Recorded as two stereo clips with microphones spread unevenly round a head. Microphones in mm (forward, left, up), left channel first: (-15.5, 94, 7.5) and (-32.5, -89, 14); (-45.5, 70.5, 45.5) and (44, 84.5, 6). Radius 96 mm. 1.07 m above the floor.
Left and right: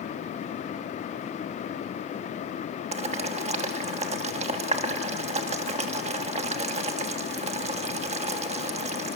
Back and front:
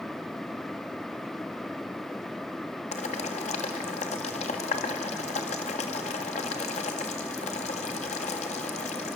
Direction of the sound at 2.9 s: 150° right.